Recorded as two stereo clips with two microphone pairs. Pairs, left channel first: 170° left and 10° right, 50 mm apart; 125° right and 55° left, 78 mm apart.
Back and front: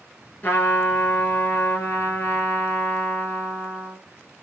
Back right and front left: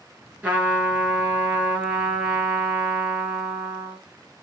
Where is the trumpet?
120° left, 3 m.